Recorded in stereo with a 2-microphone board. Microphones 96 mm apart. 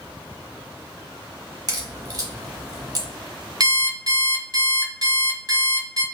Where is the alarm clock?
40° right (ahead or behind), 0.8 m.